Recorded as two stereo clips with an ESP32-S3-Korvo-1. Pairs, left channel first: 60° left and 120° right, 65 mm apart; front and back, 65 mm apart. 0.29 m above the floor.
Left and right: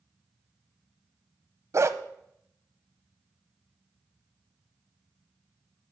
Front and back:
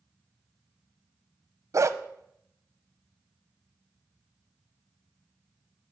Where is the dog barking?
155° right, 0.6 m.